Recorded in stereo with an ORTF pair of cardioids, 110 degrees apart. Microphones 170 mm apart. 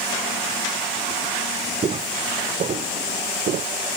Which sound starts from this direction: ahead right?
Footsteps, at 1.8 s.